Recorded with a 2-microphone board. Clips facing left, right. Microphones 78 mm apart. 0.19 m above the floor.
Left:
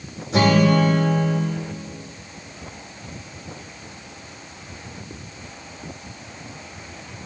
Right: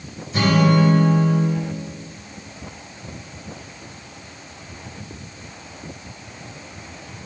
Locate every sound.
0.3 s a guitar: 75° left (ahead or behind), 3 m